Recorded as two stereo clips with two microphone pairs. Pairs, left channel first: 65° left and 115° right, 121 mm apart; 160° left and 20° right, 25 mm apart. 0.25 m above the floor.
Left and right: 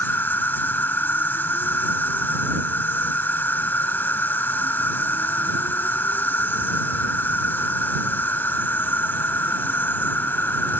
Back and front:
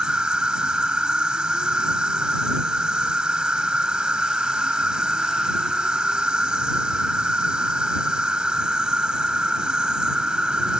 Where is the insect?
5° right.